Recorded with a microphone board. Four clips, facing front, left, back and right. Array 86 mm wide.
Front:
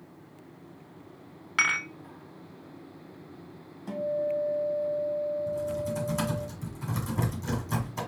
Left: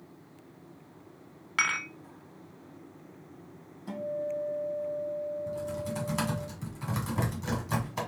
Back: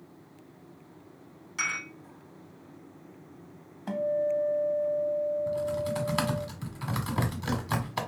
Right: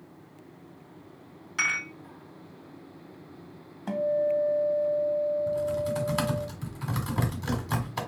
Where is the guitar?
125° right, 1.0 m.